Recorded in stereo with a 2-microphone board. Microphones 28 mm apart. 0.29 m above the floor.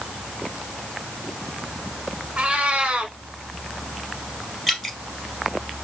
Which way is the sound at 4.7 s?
Centre (ahead or behind).